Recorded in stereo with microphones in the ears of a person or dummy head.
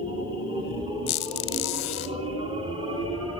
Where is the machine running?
20° right (ahead or behind), 4.5 m.